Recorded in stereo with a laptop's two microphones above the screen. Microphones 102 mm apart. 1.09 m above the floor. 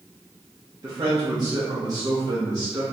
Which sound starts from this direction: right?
A man speaking, at 0.8 s.